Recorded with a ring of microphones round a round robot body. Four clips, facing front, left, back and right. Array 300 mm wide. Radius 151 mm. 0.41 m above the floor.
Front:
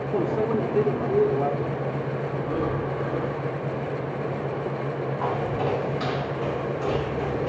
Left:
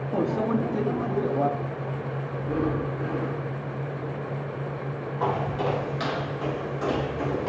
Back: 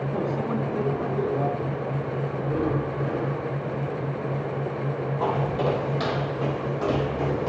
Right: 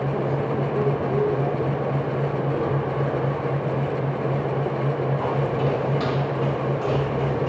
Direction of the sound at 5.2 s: 155° left.